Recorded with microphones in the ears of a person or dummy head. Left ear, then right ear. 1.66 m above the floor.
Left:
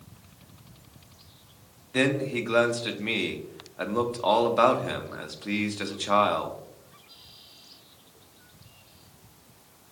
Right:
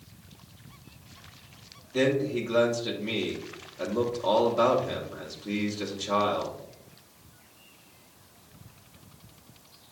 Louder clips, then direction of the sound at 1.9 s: Even; 50° left (ahead or behind).